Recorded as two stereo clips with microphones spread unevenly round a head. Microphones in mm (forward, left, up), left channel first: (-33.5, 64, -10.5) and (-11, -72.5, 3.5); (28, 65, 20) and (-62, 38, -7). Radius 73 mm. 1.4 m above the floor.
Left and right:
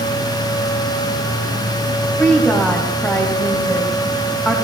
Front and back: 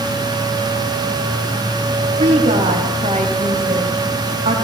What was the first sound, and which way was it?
A woman speaking, straight behind.